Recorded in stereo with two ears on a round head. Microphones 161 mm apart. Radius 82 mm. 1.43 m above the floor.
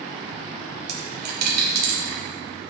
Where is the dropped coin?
55° right (ahead or behind), 2.5 m.